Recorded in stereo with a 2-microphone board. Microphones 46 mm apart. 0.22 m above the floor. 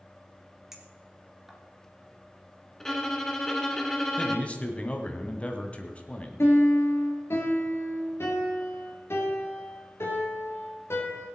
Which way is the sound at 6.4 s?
70° left (ahead or behind).